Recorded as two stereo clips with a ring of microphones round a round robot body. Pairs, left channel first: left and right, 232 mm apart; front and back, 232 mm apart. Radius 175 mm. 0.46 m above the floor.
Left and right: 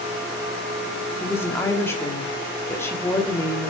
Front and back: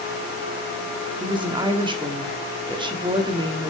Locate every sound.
1.2 s a woman speaking: 150° left, 1.1 m